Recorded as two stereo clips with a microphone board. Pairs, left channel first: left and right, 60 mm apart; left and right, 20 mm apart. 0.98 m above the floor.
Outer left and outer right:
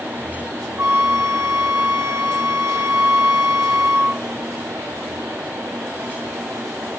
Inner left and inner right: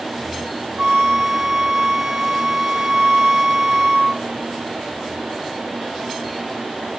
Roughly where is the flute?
Right.